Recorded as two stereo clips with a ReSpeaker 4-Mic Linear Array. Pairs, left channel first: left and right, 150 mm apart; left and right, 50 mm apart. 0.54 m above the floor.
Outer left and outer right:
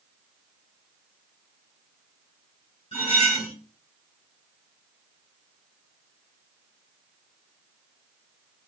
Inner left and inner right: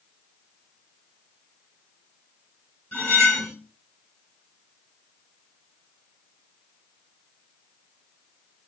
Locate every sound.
2.9 s cutlery clinking: 35° left (ahead or behind), 1.9 m